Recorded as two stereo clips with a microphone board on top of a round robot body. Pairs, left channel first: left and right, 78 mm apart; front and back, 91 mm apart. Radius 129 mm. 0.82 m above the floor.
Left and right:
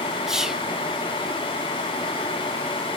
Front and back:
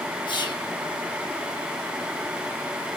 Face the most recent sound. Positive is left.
turn(degrees=-10)